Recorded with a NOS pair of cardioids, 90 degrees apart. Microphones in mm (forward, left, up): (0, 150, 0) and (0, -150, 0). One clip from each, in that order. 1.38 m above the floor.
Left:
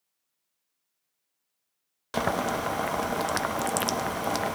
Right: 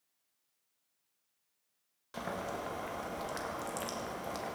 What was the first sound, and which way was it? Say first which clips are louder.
Boiling: left 12 dB; 70° left.